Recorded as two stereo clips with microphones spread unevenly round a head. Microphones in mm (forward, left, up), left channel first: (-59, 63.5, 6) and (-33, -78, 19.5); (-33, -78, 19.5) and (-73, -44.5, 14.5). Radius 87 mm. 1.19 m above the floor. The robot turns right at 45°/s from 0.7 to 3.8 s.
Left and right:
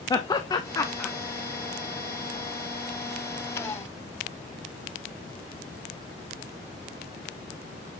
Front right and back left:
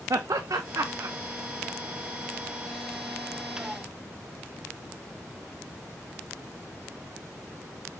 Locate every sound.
0.1 s laughter: 165° left, 0.5 m; by 1.1 s 175° right, 0.5 m